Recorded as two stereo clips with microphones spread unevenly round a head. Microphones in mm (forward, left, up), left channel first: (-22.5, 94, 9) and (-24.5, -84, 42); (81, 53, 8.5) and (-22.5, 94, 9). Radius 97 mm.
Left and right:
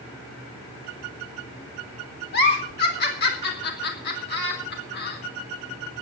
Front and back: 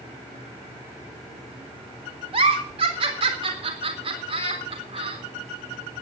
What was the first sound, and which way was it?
A giggle, 125° left.